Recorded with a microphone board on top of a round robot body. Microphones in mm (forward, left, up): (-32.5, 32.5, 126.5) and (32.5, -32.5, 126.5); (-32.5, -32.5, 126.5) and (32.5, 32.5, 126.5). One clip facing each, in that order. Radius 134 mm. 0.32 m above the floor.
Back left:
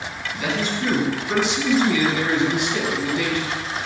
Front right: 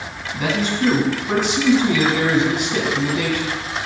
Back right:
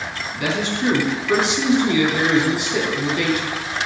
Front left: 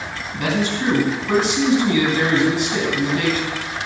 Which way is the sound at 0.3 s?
Straight ahead.